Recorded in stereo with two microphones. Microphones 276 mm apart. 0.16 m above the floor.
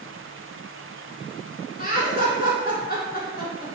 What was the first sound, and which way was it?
Laughter, 35° left (ahead or behind).